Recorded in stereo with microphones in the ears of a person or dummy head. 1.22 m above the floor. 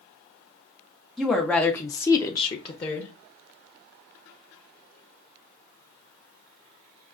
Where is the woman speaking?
Centre (ahead or behind), 0.7 m; by 3.1 s 30° left (ahead or behind), 0.7 m.